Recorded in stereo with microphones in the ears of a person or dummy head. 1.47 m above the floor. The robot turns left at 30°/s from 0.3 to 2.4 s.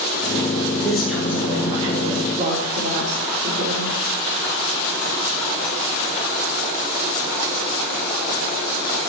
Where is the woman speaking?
5° left, 5 m; by 4.0 s 45° right, 5 m.